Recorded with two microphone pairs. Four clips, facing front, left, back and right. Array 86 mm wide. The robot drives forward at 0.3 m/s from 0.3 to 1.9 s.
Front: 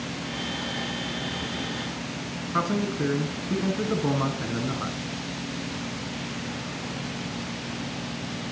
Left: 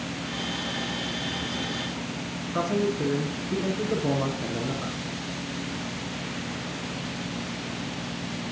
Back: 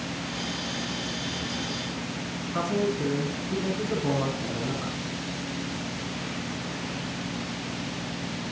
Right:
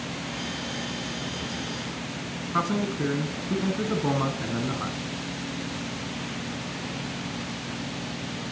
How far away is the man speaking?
About 1.4 m.